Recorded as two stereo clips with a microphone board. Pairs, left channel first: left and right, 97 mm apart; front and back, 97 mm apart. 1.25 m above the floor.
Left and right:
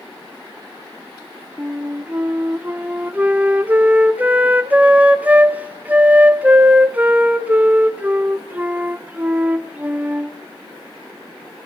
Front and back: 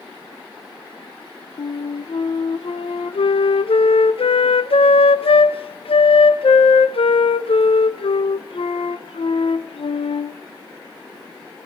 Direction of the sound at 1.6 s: 15° right.